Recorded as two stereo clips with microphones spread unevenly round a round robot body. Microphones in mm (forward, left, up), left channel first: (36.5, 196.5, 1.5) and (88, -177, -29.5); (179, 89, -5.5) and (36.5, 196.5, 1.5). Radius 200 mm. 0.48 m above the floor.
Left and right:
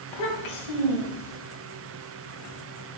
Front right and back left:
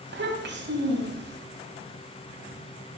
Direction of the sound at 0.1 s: 125° left.